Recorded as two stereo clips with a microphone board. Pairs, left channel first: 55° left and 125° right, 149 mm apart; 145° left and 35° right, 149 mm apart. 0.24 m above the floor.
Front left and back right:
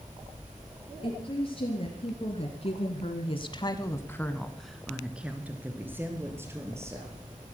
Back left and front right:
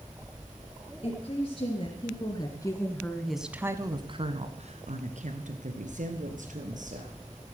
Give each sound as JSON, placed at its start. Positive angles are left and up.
{"t": 1.0, "sound": "a woman speaking", "azimuth_deg": 100, "distance_m": 3.5}